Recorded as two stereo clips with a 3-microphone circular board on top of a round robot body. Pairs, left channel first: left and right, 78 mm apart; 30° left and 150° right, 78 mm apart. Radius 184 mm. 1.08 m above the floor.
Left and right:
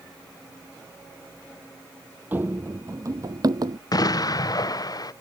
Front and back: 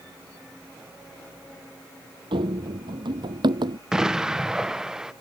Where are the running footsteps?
155° right; by 3.8 s 125° right.